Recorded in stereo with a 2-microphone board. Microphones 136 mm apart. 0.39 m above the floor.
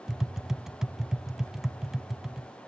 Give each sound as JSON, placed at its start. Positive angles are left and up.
{"t": 0.1, "sound": "tapping", "side_deg": -5, "distance_m": 0.5}